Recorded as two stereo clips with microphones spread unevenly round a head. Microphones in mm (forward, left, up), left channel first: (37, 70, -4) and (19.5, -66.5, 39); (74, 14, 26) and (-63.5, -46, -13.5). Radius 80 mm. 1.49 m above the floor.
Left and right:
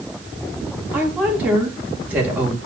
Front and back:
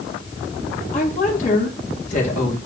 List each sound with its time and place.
0.9 s a woman speaking: 15° right, 3 m